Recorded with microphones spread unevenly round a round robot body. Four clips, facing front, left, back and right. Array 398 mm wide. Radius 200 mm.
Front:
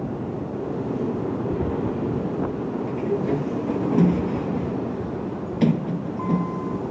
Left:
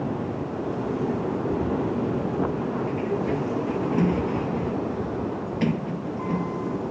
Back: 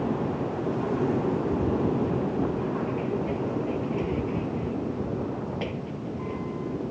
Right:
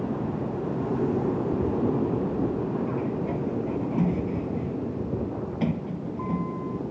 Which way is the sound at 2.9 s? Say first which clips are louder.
Left 3 dB, front 4 dB; straight ahead.